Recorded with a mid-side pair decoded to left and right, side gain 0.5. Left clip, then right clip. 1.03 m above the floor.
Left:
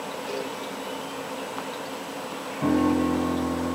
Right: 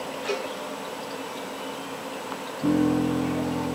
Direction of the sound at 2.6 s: 70° left.